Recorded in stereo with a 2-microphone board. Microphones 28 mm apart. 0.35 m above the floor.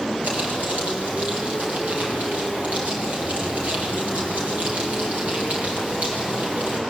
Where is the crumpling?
75° right (ahead or behind), 9.5 m.